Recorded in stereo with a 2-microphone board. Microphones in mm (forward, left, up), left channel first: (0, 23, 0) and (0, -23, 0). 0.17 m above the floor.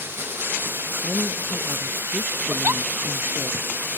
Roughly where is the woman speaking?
Centre.